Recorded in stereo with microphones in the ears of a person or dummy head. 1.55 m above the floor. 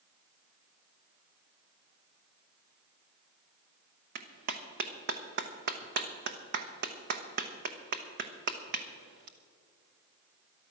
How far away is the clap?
About 0.9 m.